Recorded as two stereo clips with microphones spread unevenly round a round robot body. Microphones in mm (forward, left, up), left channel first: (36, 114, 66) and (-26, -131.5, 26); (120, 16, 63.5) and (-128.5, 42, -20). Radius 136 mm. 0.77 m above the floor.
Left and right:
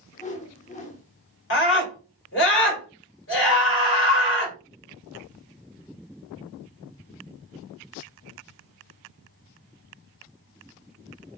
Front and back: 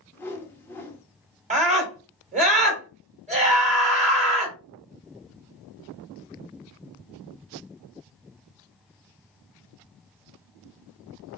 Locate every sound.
0.1 s a whoosh: 110° left, 1.1 m
1.5 s a scream: 120° left, 2.5 m